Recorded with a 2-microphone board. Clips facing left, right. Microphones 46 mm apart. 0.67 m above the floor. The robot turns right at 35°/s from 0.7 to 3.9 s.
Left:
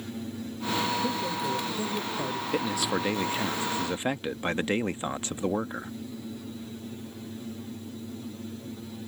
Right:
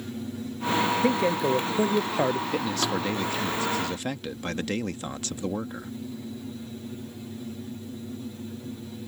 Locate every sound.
1.0 s a man speaking: 115° right; by 2.4 s 65° right
2.5 s a man speaking: 5° left (ahead or behind); by 5.9 s 20° left (ahead or behind)